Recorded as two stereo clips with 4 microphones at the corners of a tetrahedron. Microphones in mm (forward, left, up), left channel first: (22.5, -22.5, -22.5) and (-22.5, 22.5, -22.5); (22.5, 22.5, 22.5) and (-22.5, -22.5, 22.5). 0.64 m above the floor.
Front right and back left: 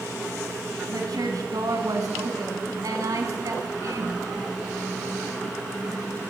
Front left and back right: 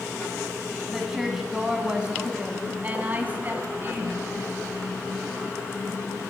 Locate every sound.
0.9 s a woman speaking: 140° left, 5.5 m; by 4.3 s 175° left, 6.5 m